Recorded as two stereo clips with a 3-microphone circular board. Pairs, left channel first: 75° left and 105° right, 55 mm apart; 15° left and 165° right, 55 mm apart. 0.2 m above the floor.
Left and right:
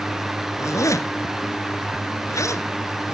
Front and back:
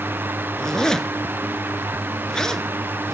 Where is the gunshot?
I don't hear a gunshot.